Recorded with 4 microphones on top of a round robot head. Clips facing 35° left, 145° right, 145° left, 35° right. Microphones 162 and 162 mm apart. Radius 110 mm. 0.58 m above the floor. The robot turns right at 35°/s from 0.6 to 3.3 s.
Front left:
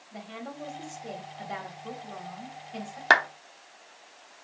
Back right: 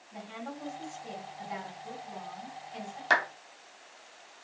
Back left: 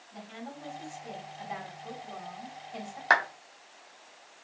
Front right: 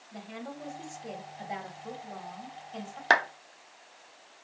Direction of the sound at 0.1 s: 10° right.